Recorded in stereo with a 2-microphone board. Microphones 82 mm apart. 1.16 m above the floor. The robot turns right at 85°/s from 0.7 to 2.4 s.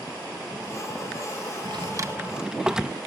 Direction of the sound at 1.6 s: 70° right (ahead or behind).